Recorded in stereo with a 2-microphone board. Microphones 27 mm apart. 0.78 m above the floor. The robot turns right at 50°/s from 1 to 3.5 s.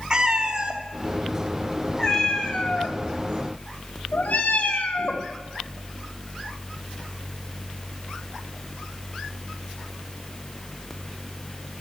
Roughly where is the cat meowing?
Right.